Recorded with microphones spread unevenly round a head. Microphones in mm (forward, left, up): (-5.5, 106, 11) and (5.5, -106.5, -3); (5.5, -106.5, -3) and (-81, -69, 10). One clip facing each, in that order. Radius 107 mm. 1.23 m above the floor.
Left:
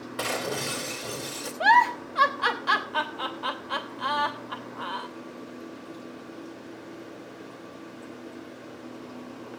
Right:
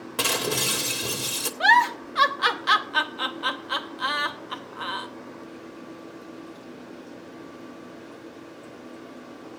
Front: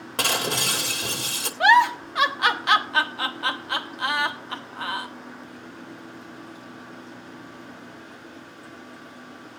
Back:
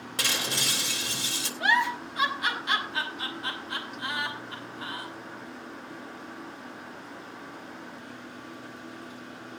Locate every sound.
0.2 s breaking glass: 65° right, 2 m
1.6 s a giggle: 30° right, 1.0 m